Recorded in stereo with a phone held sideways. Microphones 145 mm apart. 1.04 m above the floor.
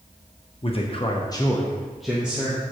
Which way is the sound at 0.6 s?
40° left (ahead or behind).